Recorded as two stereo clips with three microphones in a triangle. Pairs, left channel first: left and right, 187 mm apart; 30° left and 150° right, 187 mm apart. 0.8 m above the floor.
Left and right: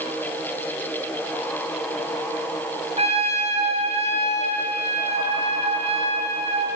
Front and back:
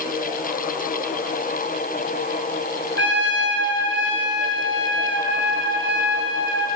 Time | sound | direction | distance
3.0 | a trumpet | 145° right | 8 m